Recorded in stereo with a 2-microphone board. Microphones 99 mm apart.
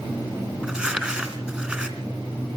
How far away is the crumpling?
About 2.5 m.